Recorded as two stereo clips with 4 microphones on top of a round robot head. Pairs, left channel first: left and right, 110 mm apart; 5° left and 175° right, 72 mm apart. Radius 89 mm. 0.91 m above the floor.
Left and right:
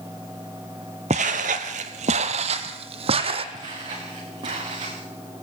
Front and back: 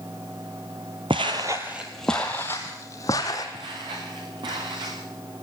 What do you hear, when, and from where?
1.1 s footsteps: 130° right, 1.3 m; by 3.4 s 55° right, 2.5 m
3.5 s footsteps: 145° right, 6 m; by 5.0 s 140° right, 6 m